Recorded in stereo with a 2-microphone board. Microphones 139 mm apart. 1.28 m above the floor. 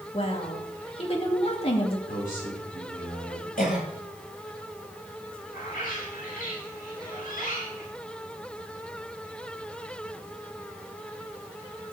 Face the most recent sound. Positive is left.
turn(degrees=70)  # may be behind; listen again after turning